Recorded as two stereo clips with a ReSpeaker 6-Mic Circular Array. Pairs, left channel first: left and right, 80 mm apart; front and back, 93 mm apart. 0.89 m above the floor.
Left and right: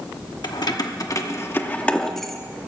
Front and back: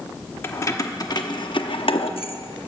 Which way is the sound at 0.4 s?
60° left.